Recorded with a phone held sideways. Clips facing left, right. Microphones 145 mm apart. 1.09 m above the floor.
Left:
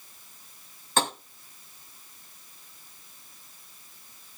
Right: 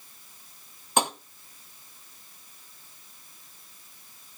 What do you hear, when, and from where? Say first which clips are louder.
1.0 s tapping: right 1 dB; 15° right (ahead or behind), 1.7 m